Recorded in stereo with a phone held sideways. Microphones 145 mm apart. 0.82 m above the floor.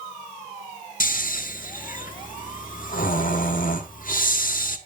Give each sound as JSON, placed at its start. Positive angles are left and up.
{"t": 1.0, "sound": "snoring", "side_deg": 70, "distance_m": 1.4}